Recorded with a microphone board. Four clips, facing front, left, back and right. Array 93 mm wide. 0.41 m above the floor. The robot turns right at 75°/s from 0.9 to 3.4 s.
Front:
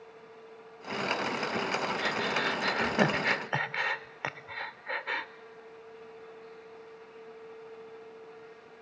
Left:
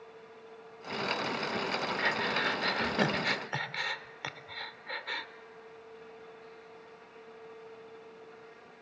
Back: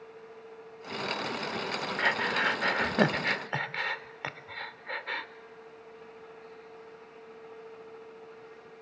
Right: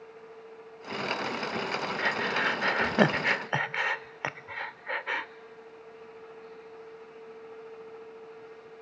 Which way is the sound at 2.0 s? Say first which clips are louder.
Right 3 dB, back 2 dB; 175° right.